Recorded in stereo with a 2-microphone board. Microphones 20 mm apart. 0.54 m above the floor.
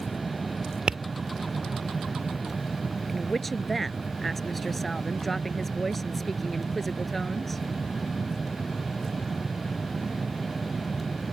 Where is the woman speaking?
10° left (ahead or behind).